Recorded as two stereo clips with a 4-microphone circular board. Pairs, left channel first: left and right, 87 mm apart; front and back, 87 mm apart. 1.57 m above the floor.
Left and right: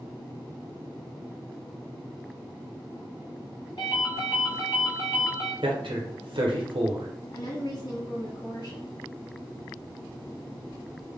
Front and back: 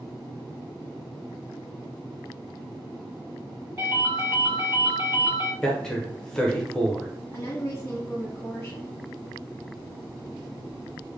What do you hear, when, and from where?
3.8 s a ringtone: 130° left, 1.4 m
5.6 s a man speaking: 85° right, 0.8 m
7.3 s a woman speaking: 60° left, 1.4 m